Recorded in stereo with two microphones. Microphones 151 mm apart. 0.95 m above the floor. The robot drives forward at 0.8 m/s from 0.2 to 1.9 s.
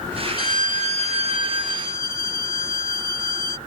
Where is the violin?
70° right (ahead or behind); by 3.6 s 30° right (ahead or behind).